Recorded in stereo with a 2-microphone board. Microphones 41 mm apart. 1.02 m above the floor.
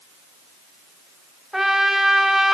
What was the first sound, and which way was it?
A trumpet, 10° right (ahead or behind).